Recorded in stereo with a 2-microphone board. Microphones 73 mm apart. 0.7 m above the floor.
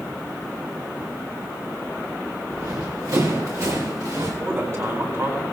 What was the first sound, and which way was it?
Running footsteps, 50° right (ahead or behind).